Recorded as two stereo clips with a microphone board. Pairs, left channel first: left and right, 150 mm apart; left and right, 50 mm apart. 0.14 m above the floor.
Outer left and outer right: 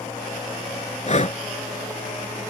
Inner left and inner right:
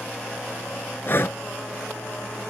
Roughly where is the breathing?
Left.